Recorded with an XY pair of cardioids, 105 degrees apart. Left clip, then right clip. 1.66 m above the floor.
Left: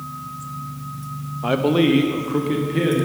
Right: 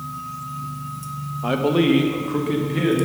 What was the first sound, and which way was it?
A man speaking, 15° left.